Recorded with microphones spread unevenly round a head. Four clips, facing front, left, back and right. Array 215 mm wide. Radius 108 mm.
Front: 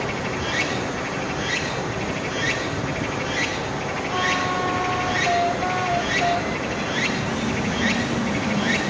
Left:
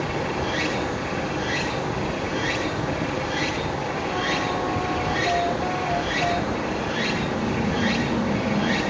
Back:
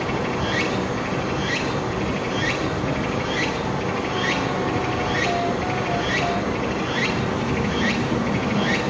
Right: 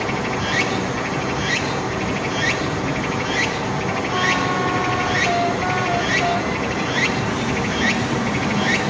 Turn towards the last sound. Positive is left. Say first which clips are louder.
# right 3 dB, back 3 dB
turn(degrees=-100)